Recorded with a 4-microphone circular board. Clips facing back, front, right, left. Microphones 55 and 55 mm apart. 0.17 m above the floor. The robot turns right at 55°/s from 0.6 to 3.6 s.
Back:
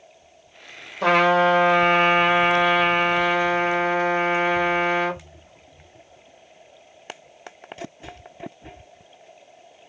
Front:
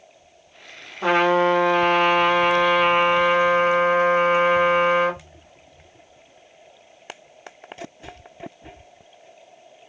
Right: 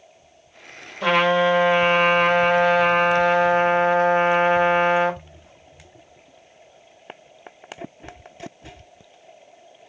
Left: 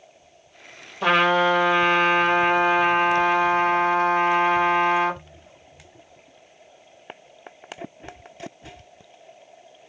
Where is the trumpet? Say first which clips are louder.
Back 1 dB, even; 170° left, 1.4 m; by 5.2 s 45° right, 1.4 m.